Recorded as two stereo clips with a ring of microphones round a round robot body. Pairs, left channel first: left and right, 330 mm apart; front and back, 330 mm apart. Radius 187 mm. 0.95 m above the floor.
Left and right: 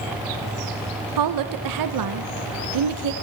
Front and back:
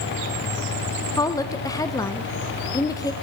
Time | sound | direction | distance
1.2 | a woman speaking | 80° right | 0.6 m